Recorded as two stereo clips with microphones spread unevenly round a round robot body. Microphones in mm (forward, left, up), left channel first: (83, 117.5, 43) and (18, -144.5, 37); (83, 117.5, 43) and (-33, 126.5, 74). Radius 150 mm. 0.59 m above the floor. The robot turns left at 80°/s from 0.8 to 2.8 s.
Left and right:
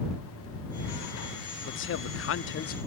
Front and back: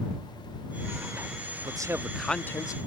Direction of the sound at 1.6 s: 115° left.